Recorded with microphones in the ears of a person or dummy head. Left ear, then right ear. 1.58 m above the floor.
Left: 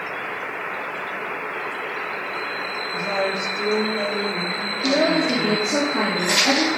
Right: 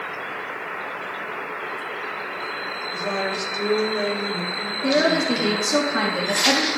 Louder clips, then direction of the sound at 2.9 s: Left 2 dB; 85° right.